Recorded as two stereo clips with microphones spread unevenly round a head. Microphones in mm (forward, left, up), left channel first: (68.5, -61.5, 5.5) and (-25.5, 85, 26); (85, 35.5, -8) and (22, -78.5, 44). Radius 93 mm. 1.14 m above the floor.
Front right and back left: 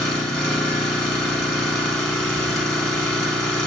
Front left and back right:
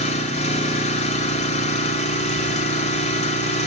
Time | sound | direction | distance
0.0 | an engine running | 30° left | 1.3 m